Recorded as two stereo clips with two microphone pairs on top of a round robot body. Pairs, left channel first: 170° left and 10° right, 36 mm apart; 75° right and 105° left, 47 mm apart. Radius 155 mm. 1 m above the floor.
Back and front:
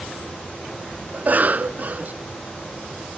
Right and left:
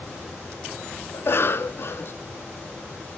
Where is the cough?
40° right, 0.7 m.